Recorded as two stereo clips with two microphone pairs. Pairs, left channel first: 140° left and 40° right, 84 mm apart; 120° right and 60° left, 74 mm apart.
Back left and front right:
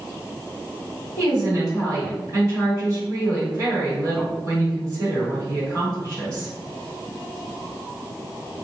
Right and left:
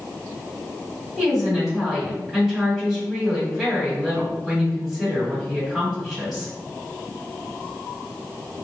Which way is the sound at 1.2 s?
30° right.